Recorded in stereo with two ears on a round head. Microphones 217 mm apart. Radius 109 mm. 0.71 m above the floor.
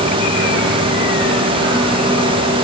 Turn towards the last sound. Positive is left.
No sound to turn to.